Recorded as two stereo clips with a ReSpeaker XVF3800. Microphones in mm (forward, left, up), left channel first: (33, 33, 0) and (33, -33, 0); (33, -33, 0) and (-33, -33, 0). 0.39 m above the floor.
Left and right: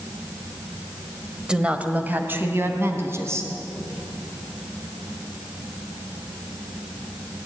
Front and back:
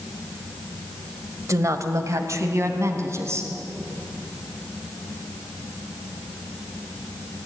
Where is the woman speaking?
165° right, 1.5 m; by 3.5 s 135° right, 4 m.